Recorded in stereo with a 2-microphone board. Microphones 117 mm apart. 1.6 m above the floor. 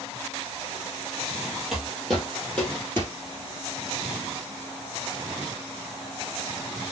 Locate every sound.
1.7 s footsteps: 5° right (ahead or behind), 1.8 m; by 3.1 s 20° left (ahead or behind), 1.8 m